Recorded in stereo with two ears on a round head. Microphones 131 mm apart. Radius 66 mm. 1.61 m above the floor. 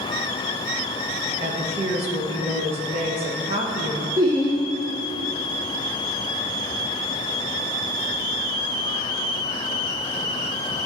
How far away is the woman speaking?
About 1.3 m.